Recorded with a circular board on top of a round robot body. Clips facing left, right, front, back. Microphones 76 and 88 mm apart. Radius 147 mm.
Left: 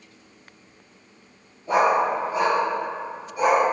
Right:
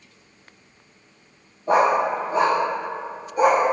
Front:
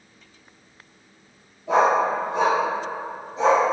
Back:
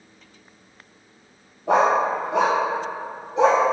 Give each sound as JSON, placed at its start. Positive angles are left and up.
{"t": 1.7, "sound": "a dog barking", "azimuth_deg": -145, "distance_m": 0.6}